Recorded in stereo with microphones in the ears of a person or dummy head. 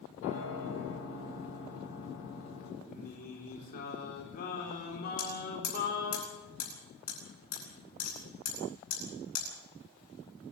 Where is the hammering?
45° left (ahead or behind), 10 m.